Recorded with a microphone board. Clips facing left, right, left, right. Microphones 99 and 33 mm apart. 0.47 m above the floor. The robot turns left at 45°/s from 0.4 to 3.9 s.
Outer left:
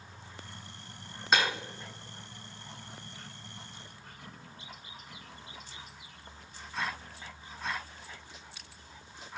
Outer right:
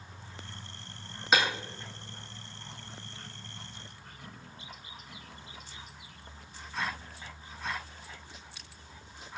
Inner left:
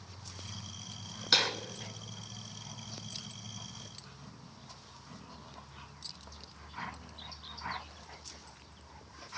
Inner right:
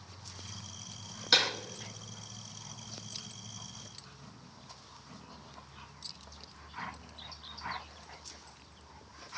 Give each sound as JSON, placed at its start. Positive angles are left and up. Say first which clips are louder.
{"t": 1.3, "sound": "breaking glass", "louder": "outer right 1 dB, inner right 1 dB", "side_deg": 0, "distance_m": 1.4}